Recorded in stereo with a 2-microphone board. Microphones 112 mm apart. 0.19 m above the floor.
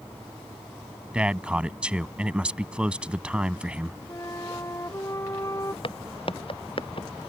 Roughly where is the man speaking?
Centre.